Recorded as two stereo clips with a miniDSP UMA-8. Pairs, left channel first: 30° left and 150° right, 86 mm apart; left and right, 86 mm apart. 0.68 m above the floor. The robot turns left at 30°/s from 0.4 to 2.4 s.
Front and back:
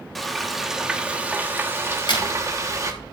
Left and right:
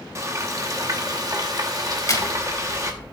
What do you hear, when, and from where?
0.1 s frying: 60° right, 1.1 m; by 2.9 s 120° right, 1.1 m
1.9 s a crack: 45° left, 1.6 m; by 2.3 s 35° left, 1.6 m